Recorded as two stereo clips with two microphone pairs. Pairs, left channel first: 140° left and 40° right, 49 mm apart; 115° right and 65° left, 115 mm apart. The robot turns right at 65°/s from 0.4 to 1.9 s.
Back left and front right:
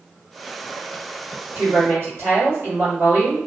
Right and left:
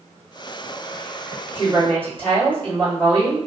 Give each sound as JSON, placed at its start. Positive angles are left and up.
{"t": 1.6, "sound": "a woman speaking", "azimuth_deg": -65, "distance_m": 1.9}